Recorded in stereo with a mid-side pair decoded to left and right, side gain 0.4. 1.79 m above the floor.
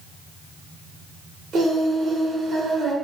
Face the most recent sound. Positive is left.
turn(degrees=-65)